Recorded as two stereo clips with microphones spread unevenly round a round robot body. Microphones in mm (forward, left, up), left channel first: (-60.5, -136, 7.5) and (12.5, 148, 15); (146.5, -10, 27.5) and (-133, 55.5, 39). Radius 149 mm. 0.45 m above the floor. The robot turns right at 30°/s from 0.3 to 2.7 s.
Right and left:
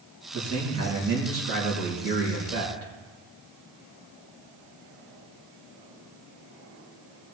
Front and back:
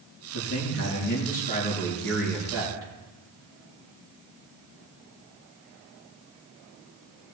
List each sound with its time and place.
0.3 s a man speaking: 20° left, 5.5 m; by 2.9 s 90° left, 5.5 m